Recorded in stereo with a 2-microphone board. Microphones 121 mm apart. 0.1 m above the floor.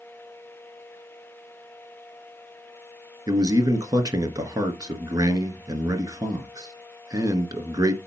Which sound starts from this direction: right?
A man speaking, at 3.3 s.